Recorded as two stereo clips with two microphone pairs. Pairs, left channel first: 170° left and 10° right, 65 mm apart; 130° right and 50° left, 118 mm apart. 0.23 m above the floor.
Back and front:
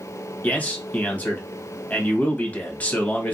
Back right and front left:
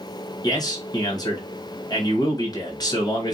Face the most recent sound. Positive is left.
turn(degrees=-145)